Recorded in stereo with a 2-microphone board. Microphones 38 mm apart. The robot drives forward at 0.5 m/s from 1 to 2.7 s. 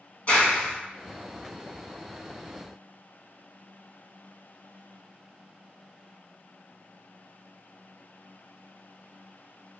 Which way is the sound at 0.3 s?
35° left (ahead or behind).